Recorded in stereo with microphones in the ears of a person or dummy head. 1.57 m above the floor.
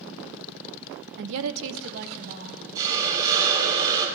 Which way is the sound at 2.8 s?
20° right (ahead or behind).